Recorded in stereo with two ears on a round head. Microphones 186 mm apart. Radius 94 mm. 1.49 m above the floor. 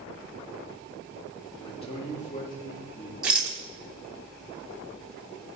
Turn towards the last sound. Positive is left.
turn(degrees=-5)  # may be behind; listen again after turning